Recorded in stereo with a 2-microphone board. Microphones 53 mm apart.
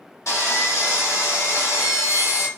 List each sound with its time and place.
0.3 s sawing: 65° left (ahead or behind), 1.3 m